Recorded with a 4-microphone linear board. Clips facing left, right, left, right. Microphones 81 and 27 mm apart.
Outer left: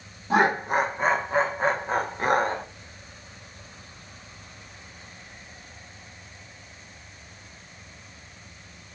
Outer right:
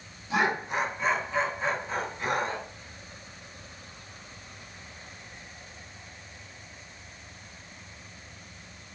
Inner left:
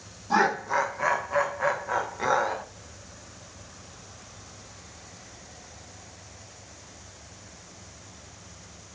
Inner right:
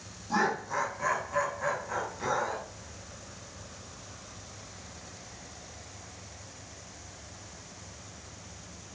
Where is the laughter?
45° left (ahead or behind), 0.9 m.